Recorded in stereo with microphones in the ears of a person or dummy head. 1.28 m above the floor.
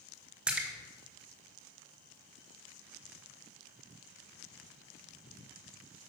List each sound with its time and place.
0.5 s a splash: 10° right (ahead or behind), 1.0 m